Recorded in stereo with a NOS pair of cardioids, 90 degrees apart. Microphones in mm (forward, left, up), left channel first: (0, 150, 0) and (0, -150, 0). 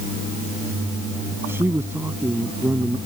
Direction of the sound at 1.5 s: 5° right.